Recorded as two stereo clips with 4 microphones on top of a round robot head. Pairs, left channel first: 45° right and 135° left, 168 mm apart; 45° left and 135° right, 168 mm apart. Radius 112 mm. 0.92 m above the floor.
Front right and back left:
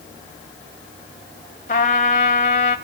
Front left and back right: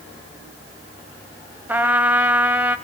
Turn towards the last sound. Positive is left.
turn(degrees=-65)